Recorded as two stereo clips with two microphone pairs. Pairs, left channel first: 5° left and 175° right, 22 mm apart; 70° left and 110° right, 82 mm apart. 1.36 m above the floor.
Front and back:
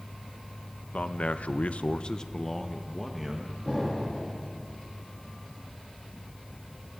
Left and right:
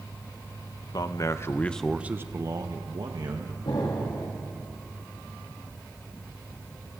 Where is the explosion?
80° left, 3 m.